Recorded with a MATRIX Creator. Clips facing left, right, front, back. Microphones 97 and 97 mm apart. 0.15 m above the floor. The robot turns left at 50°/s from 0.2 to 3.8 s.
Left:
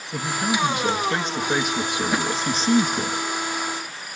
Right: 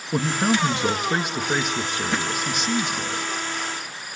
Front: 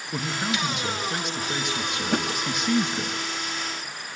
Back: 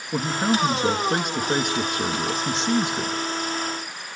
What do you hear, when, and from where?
0.1 s a man speaking: 110° right, 1.4 m; by 3.1 s 105° left, 1.4 m
2.1 s a thud: 10° left, 1.1 m; by 2.3 s 5° left, 1.1 m